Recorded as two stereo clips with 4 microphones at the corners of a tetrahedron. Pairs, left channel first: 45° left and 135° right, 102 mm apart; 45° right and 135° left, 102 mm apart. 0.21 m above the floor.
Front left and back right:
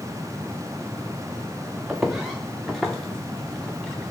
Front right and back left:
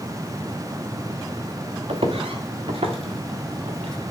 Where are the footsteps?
145° left, 1.1 m; by 4.1 s 125° left, 2 m.